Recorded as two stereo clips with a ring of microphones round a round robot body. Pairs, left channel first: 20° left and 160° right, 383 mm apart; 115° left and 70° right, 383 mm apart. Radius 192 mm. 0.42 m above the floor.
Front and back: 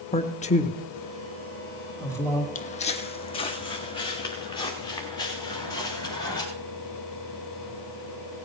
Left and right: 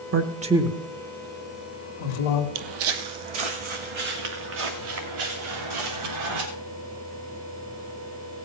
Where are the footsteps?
45° right, 0.7 m; by 6.5 s 60° right, 4.5 m.